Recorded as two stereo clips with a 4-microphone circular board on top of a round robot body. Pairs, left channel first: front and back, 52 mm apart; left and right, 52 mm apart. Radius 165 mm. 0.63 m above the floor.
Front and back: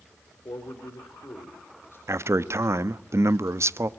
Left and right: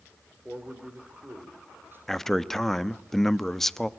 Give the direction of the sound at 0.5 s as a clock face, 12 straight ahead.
1 o'clock.